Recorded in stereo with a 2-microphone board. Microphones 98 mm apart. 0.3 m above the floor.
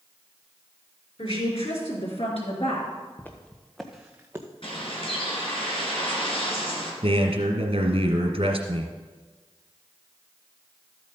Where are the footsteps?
20° left (ahead or behind), 1.6 m; by 4.5 s 25° right (ahead or behind), 1.4 m.